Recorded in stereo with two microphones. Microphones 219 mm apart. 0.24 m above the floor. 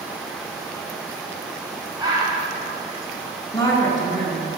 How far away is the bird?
About 1.2 m.